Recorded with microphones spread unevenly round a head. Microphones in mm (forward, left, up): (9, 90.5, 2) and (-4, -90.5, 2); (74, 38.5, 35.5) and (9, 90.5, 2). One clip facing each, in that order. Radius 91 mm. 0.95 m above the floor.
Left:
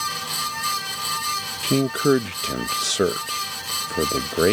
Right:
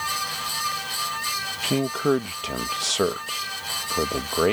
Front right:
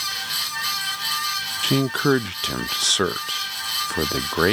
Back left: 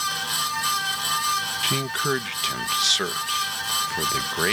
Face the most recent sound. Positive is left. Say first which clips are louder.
# left 3 dB, front right 10 dB
turn(degrees=20)